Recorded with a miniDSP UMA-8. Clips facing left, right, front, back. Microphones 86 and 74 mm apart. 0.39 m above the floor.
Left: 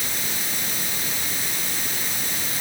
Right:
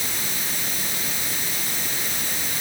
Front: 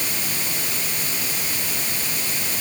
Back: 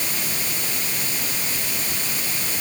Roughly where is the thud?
No thud in this recording.